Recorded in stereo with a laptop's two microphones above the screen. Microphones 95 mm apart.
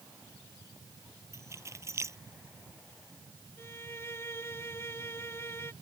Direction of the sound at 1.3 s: 30° right (ahead or behind).